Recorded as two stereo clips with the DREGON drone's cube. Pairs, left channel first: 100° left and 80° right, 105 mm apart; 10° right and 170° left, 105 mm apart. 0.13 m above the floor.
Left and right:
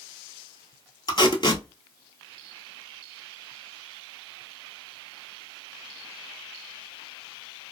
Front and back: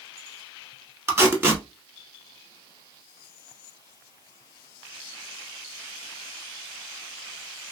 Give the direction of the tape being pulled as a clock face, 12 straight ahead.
8 o'clock.